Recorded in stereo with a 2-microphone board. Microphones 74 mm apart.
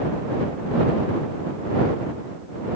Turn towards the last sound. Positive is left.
No sound to turn to.